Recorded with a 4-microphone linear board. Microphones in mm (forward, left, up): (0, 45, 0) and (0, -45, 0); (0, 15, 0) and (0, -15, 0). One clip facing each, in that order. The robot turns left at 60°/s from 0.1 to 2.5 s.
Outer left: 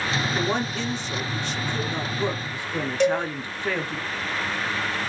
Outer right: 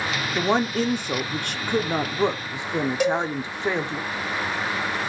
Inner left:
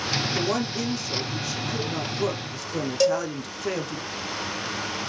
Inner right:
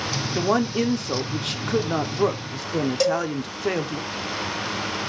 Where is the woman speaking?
30° right, 0.6 m; by 4.0 s 155° right, 0.6 m.